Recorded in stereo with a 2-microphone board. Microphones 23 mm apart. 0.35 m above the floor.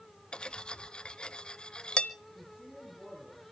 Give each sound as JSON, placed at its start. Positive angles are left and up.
{"t": 0.3, "sound": "cutlery clinking", "side_deg": 45, "distance_m": 0.6}
{"t": 2.4, "sound": "a woman speaking", "side_deg": -25, "distance_m": 8.5}